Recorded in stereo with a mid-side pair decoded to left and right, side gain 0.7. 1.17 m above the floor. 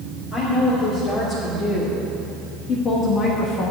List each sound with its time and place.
0.3 s a woman speaking: 35° left, 3.5 m; by 3.7 s 50° left, 1.2 m